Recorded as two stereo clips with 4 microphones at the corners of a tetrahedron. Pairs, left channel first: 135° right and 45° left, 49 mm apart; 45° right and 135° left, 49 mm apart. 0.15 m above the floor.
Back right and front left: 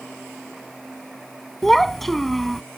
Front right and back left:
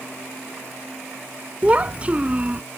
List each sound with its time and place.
1.6 s a child speaking: 145° left